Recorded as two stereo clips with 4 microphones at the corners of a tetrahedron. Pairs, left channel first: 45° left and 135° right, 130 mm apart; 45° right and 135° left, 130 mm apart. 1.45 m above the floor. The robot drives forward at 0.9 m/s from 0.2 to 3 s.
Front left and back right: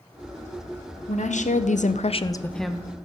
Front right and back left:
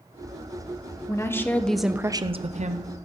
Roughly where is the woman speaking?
Ahead.